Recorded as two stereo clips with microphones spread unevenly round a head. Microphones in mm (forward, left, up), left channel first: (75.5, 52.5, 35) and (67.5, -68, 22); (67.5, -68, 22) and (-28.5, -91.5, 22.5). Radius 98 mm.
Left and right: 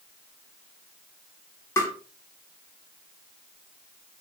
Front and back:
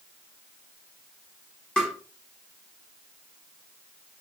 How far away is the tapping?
About 0.7 m.